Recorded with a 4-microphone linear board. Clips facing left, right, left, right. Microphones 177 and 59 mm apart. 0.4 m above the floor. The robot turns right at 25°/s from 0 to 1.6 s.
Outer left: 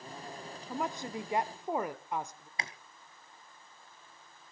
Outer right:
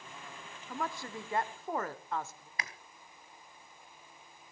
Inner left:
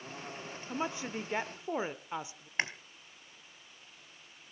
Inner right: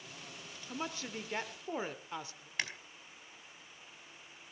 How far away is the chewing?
About 1.0 m.